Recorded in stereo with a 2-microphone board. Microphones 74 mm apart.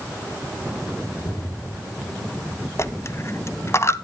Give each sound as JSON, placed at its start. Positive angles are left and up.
{"t": 1.2, "sound": "an explosion", "side_deg": 60, "distance_m": 2.5}
{"t": 2.8, "sound": "a dropped coin", "side_deg": 40, "distance_m": 0.6}